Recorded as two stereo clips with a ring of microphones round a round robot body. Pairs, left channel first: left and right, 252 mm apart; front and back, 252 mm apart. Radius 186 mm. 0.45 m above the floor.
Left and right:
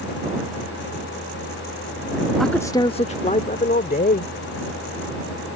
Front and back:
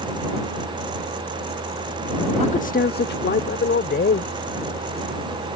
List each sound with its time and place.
2.4 s a man speaking: straight ahead; by 4.3 s 40° left